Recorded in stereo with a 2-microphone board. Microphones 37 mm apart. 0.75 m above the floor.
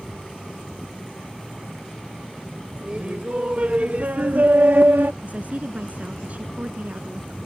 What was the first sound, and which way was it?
Laughter, 30° right (ahead or behind).